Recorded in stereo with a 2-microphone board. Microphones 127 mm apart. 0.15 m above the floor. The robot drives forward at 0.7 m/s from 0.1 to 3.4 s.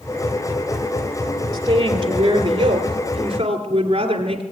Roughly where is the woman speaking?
Right.